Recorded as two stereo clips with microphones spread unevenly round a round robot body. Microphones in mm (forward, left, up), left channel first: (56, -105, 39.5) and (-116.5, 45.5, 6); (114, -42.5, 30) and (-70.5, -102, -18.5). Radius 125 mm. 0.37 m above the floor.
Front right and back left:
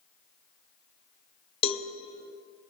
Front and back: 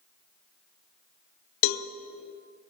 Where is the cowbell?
30° left, 0.6 m.